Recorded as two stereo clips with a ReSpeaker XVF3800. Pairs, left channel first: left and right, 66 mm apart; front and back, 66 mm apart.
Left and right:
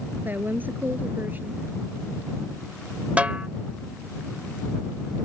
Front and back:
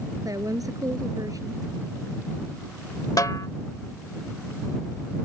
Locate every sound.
0.2 s a woman speaking: 150° right
3.2 s a snare drum: 20° right